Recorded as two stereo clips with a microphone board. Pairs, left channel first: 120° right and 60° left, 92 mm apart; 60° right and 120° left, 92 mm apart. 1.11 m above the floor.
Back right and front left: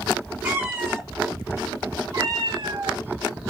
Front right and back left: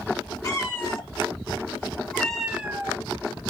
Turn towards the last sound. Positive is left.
turn(degrees=60)